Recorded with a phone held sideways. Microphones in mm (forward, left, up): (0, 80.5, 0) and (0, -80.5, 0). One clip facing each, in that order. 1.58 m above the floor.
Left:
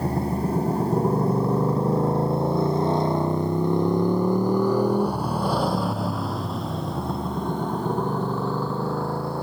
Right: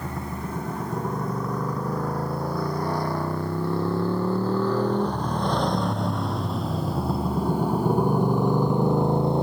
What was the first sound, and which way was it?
A motorcycle, 35° left (ahead or behind).